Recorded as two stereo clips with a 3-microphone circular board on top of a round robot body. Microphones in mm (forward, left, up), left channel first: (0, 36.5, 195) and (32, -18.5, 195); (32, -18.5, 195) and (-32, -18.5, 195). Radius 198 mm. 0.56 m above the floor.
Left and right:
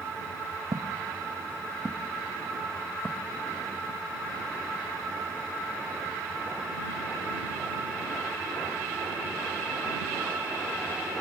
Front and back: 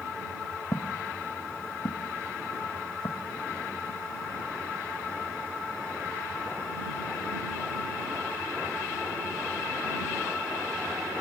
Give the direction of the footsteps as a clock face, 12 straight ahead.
1 o'clock.